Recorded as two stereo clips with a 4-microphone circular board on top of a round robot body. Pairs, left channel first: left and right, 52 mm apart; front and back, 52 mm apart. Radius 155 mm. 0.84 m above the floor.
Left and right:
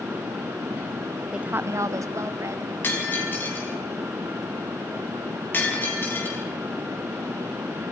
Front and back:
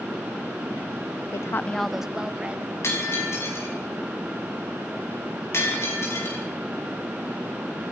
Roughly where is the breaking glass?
Ahead left.